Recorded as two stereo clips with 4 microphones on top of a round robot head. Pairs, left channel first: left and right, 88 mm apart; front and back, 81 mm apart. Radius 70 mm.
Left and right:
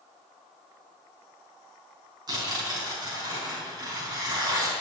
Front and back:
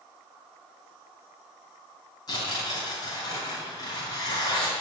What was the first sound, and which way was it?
Tearing paper, 50° right.